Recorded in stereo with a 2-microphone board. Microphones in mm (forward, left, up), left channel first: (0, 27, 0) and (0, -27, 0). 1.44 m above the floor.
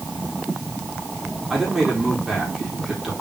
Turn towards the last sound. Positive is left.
turn(degrees=-5)  # may be behind; listen again after turning